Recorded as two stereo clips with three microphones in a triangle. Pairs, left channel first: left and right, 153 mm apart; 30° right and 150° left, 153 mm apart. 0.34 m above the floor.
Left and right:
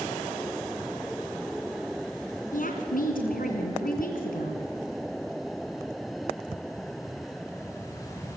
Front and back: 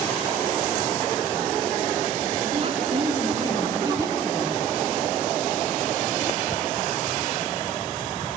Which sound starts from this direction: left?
A woman speaking, at 2.5 s.